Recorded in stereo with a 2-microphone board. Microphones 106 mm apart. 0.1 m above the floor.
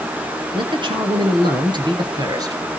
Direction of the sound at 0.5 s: 50° right (ahead or behind).